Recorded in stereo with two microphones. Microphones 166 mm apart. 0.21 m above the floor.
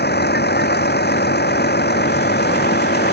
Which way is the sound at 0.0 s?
85° left.